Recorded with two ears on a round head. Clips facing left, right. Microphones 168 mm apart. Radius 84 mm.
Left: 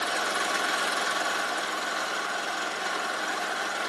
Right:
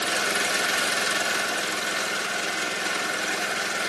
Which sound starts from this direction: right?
An engine running, at 0.0 s.